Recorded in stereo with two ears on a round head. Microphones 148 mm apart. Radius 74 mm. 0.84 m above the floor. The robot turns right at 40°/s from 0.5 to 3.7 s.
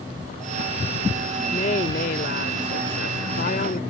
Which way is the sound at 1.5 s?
40° left.